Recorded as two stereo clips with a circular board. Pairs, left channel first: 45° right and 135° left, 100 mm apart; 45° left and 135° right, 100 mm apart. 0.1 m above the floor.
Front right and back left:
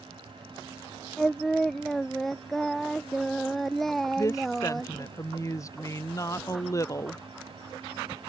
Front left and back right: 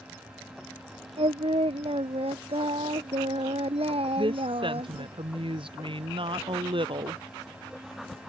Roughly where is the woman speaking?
Right.